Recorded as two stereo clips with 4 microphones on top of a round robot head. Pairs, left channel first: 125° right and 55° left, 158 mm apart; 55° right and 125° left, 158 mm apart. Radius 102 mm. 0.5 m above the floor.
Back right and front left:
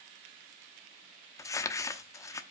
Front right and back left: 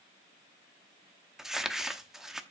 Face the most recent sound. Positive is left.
turn(degrees=-155)